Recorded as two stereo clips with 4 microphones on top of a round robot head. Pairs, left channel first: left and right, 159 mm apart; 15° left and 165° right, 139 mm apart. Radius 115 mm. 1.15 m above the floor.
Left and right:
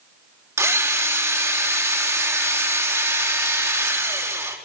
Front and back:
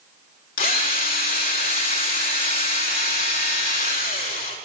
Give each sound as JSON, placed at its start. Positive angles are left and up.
{"t": 0.6, "sound": "a drill", "azimuth_deg": -20, "distance_m": 4.5}